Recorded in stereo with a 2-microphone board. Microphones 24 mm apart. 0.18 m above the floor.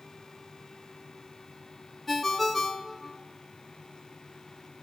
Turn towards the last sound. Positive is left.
turn(degrees=5)  # may be behind; listen again after turning